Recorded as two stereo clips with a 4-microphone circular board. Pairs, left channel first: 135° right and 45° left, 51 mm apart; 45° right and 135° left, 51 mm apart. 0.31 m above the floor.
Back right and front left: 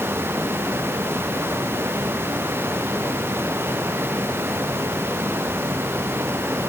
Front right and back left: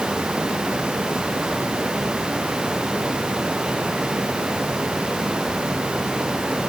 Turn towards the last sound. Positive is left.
No sound to turn to.